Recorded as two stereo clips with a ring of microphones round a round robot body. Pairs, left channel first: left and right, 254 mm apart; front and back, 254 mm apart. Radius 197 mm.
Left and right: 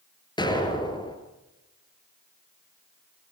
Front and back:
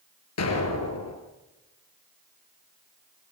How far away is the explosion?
About 4 m.